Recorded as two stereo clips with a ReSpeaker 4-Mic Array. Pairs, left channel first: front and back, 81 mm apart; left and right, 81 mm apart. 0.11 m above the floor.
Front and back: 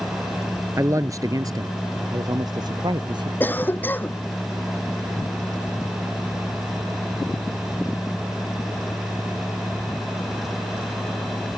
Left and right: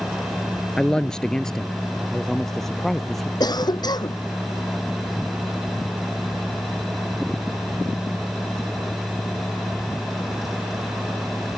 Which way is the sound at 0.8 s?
165° left.